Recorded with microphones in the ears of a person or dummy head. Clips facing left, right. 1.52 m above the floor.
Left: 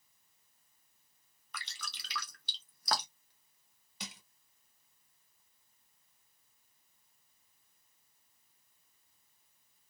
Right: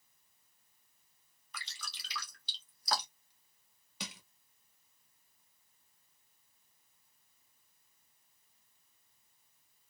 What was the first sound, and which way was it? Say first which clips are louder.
Dripping: left 2 dB; 50° left (ahead or behind).